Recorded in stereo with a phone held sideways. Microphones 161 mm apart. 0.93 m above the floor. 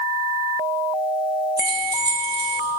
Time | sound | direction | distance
1.6 | keys jangling | 80° right | 1.0 m